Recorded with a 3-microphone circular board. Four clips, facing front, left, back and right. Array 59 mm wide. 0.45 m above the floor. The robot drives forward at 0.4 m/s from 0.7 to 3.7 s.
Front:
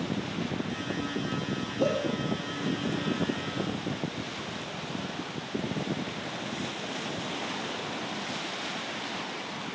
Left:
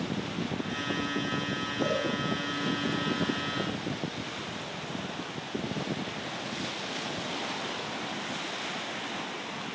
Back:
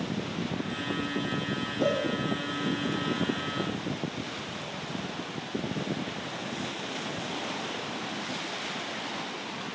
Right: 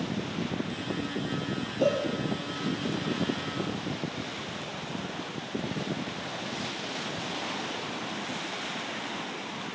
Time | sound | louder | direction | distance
1.8 | a cowbell | right 4 dB, even | 65° right | 7.5 m